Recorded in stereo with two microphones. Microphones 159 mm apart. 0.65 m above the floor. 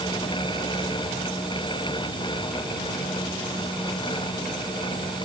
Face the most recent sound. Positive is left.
No sound to turn to.